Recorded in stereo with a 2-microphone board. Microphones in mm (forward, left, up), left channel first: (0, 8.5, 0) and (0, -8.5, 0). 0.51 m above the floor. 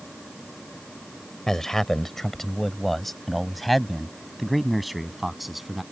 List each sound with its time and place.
1.5 s a man speaking: 30° left (ahead or behind); by 5.8 s 5° right (ahead or behind)